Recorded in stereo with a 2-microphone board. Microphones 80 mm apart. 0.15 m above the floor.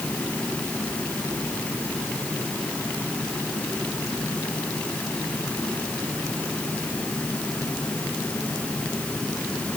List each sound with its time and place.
Only background noise.